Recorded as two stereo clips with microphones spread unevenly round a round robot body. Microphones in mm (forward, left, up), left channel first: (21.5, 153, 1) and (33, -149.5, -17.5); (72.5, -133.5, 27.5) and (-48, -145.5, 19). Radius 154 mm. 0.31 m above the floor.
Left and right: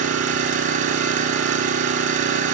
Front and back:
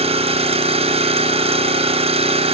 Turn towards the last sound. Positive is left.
turn(degrees=-150)